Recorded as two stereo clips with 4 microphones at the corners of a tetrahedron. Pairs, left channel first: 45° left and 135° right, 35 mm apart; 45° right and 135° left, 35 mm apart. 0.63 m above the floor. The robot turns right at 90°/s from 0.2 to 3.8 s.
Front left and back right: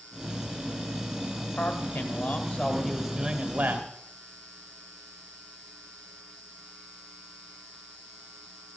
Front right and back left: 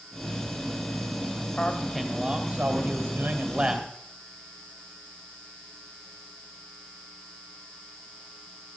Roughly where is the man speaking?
Ahead.